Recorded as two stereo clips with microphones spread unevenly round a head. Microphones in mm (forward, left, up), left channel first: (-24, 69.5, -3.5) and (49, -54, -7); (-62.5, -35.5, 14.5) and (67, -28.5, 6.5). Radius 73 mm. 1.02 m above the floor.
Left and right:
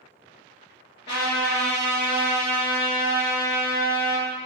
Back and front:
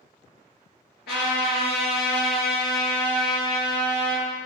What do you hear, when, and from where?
1.1 s a trumpet: 170° left, 2.5 m